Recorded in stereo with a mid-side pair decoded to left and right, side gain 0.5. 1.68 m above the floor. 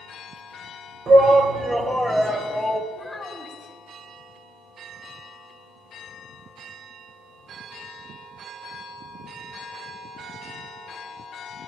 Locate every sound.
1.1 s a shout: 50° right, 1.3 m; by 2.8 s 5° left, 1.7 m
2.9 s a child speaking: 5° left, 2.0 m